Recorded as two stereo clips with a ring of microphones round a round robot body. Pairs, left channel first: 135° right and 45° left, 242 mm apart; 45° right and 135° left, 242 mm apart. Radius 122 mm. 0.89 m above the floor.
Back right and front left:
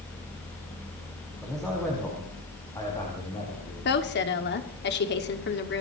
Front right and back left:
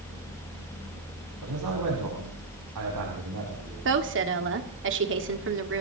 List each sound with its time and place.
1.4 s a man speaking: 135° left, 6 m; by 3.8 s 160° left, 5.5 m
3.9 s a woman speaking: 175° left, 1.8 m